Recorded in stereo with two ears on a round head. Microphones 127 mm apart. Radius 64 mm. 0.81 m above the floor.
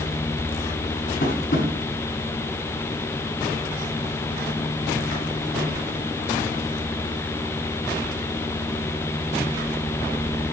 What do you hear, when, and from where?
1.2 s tapping: 75° left (ahead or behind), 6 m